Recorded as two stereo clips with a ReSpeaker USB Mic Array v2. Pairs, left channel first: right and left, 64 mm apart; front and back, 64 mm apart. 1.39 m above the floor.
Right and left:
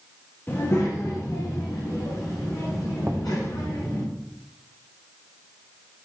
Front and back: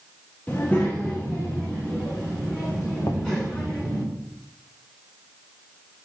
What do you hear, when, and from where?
0.5 s a child speaking: 45° right, 0.9 m; by 4.0 s 75° right, 3.5 m
3.0 s knocking: 25° left, 1.0 m